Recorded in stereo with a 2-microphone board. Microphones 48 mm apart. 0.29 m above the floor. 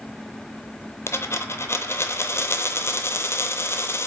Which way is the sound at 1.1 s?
65° left (ahead or behind).